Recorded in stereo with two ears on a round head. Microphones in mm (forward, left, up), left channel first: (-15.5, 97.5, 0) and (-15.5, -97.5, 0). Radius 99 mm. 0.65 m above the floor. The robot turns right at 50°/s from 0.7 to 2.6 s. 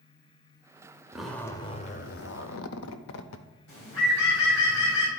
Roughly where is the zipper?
Ahead.